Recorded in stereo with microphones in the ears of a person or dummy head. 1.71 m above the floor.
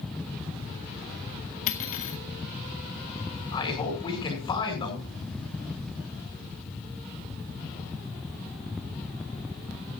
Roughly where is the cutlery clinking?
Left.